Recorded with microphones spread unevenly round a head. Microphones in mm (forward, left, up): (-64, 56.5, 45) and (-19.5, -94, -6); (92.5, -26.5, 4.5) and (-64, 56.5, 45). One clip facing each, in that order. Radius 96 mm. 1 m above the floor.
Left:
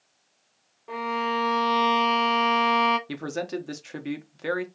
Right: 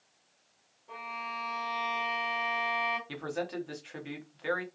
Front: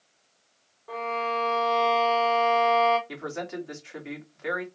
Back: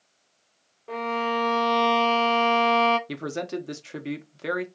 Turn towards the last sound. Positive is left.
turn(degrees=130)